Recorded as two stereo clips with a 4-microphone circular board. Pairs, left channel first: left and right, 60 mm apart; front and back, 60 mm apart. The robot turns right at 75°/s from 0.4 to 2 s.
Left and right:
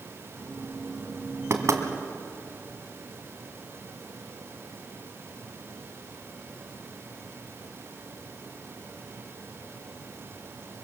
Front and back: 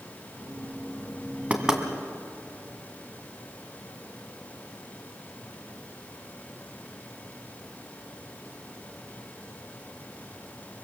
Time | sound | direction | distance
1.5 | knocking | 120° right | 2 m